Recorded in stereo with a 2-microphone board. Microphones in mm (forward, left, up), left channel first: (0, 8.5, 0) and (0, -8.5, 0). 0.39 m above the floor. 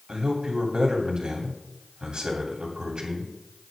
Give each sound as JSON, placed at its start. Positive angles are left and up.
{"t": 0.1, "sound": "a man speaking", "side_deg": -60, "distance_m": 3.0}